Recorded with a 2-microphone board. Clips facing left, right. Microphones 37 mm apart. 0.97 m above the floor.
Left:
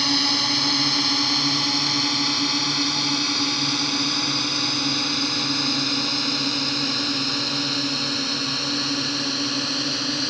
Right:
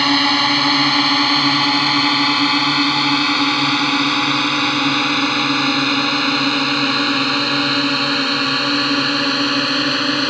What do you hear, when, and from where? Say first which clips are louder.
0.0 s a drone: right 8 dB; 40° right (ahead or behind); by 10.3 s 45° right (ahead or behind)